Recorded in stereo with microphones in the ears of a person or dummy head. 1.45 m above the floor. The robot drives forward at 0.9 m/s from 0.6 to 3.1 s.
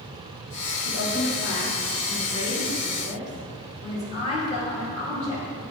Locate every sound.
0.8 s a woman speaking: 75° left (ahead or behind), 2.5 m; by 5.6 s 40° left (ahead or behind), 3.5 m